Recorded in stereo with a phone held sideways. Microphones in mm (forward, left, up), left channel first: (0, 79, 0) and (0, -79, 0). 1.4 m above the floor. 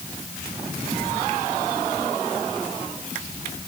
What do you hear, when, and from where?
Only background noise.